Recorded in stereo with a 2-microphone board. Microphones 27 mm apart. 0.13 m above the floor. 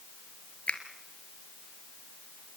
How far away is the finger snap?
About 2 m.